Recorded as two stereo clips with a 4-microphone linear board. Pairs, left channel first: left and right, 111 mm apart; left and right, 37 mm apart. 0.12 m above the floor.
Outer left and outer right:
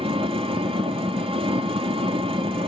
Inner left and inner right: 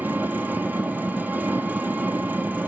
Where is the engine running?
60° right (ahead or behind), 1.4 m.